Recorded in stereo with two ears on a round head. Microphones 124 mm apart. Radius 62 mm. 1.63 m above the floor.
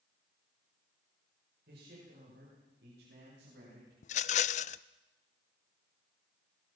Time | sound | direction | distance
1.7 | a man speaking | 80° right | 8 m
4.0 | a rattle | 55° left (ahead or behind) | 0.5 m